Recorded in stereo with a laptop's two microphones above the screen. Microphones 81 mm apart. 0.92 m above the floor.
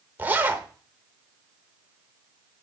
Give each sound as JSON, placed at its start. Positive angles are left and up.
{"t": 0.2, "sound": "a zipper", "side_deg": -20, "distance_m": 0.7}